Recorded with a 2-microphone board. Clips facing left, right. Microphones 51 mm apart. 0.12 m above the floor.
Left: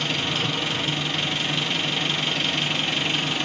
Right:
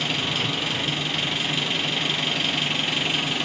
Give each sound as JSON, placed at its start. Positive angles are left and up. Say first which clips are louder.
{"t": 0.0, "sound": "an engine running", "louder": "even", "side_deg": 0, "distance_m": 1.0}